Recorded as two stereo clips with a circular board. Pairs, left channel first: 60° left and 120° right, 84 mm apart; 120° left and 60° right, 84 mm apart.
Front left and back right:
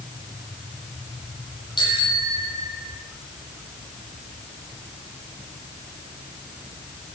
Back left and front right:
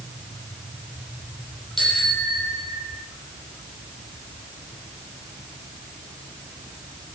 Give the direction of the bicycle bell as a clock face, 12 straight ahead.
11 o'clock.